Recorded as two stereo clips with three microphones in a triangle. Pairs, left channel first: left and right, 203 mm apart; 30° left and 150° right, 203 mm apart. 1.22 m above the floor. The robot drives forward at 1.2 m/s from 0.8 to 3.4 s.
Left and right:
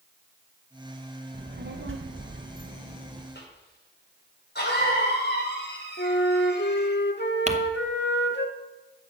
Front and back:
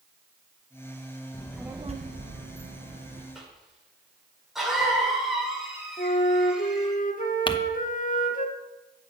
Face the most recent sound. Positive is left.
turn(degrees=-35)